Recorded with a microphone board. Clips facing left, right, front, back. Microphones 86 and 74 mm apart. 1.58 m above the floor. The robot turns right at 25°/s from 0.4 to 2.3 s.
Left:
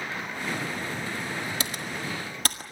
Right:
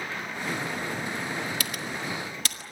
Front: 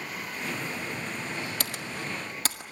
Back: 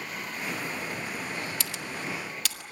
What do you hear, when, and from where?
1.6 s typing on a keyboard: 30° left, 1.8 m; by 2.6 s 50° left, 1.8 m